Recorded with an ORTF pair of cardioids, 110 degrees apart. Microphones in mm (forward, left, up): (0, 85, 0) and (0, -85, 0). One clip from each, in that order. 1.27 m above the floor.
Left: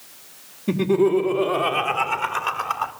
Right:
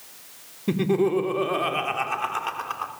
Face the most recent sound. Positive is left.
turn(degrees=20)